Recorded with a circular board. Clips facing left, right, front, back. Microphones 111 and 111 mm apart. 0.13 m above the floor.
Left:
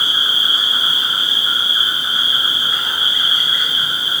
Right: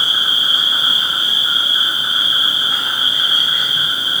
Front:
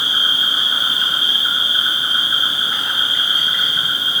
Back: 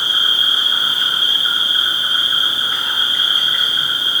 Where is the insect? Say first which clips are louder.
Even, even; 75° right, 2.0 m.